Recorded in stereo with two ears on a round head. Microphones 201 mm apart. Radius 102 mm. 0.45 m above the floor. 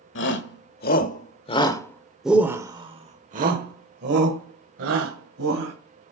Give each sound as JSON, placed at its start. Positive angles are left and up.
{"t": 0.1, "sound": "a shout", "side_deg": 55, "distance_m": 1.5}